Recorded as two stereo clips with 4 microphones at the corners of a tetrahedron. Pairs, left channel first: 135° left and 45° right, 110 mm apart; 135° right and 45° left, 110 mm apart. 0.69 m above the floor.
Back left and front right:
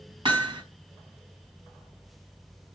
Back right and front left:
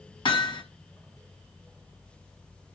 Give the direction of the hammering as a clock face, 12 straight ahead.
3 o'clock.